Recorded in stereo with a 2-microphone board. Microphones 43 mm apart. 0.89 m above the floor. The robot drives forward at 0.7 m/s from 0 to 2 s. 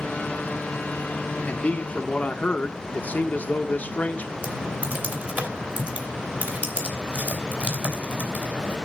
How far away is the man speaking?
About 1.2 m.